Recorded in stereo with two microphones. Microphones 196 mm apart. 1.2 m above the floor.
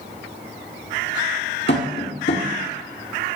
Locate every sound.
1.7 s tapping: 60° left (ahead or behind), 1.9 m